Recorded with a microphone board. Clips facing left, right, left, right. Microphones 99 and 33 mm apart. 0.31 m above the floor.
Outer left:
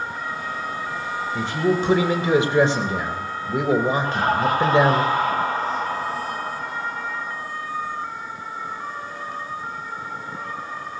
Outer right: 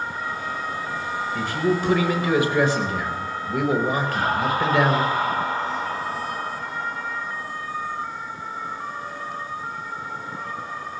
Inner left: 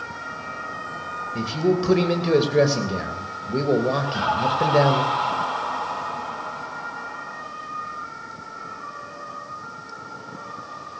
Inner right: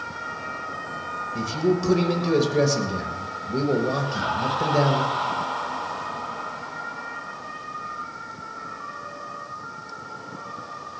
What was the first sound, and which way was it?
A man speaking, 25° left (ahead or behind).